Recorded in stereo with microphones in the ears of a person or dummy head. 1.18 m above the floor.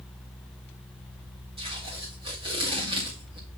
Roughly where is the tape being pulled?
Right.